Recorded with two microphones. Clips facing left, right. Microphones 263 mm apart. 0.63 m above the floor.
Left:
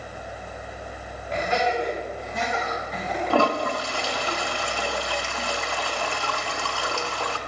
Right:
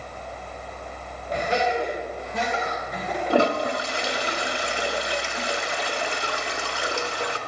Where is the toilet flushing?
20° right (ahead or behind), 0.7 m.